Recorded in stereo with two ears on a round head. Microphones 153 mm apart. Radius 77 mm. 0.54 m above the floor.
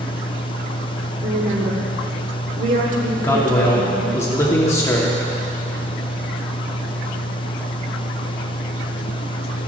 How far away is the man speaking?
About 1.3 m.